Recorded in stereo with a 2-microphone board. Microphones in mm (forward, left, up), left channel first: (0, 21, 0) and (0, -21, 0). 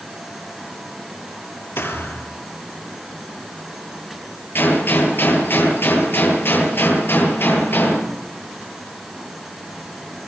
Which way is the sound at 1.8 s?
70° left (ahead or behind).